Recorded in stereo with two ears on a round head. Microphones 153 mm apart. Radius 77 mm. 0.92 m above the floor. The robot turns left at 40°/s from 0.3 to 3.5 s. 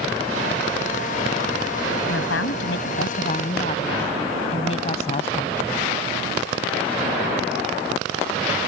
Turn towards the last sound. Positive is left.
turn(degrees=35)